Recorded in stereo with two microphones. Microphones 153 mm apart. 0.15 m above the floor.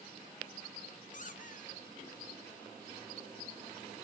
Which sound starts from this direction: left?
A squeak, at 1.1 s.